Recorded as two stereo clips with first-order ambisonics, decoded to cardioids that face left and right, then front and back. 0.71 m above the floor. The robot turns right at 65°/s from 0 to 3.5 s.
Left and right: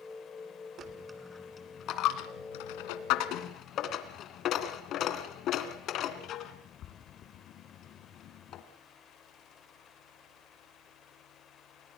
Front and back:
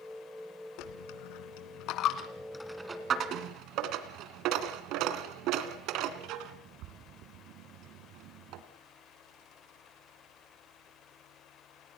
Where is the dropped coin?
35° right, 2 m; by 8.6 s 145° left, 2 m.